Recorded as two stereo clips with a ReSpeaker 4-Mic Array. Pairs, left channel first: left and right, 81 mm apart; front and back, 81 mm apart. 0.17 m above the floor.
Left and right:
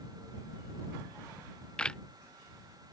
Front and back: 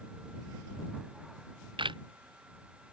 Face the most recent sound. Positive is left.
turn(degrees=170)